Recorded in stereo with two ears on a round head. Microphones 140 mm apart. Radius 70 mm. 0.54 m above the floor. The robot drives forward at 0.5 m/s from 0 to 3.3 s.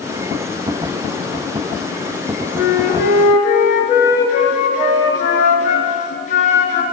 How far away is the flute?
About 2 m.